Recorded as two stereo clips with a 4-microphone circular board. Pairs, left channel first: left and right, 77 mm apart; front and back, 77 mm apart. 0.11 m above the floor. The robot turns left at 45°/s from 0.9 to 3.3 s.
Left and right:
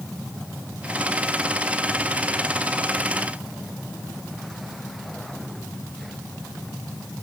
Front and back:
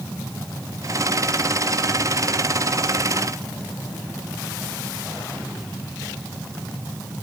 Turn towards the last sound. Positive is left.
No sound to turn to.